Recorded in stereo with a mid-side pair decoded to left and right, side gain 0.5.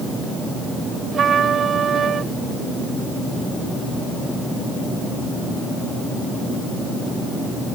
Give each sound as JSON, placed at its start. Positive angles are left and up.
{"t": 1.1, "sound": "a trumpet", "azimuth_deg": -45}